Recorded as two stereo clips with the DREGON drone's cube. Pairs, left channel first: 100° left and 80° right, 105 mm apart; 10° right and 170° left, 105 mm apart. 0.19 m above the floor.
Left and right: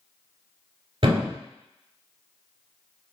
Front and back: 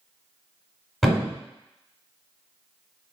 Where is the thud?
100° right, 1.0 m.